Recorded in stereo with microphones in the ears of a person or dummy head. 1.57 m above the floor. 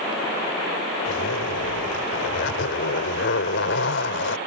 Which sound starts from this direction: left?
A zipper, at 1.1 s.